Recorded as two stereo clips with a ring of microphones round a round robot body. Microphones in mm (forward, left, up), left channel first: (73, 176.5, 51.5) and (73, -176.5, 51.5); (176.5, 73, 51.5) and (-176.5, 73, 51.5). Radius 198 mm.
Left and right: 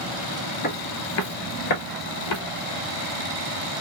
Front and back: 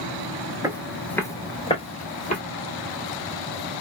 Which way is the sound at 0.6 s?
110° left.